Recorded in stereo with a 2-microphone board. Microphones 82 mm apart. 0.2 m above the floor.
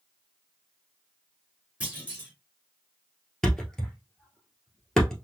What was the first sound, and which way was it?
A clunk, 15° right (ahead or behind).